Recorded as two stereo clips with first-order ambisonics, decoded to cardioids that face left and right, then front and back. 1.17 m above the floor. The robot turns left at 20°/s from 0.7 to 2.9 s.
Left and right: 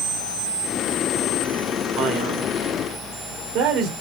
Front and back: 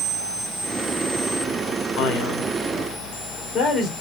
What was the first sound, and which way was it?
A man speaking, 40° right.